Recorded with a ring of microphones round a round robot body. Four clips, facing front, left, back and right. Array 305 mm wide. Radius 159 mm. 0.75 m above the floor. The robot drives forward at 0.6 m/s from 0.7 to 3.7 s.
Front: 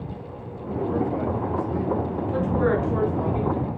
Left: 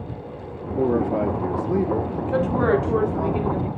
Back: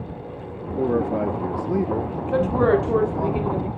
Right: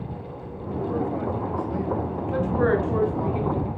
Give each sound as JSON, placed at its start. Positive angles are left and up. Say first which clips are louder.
{"t": 0.8, "sound": "a man speaking", "louder": "left 6 dB, back 3 dB", "azimuth_deg": 120, "distance_m": 1.1}
{"t": 2.3, "sound": "a woman speaking", "louder": "left 2 dB, back 5 dB", "azimuth_deg": 145, "distance_m": 2.5}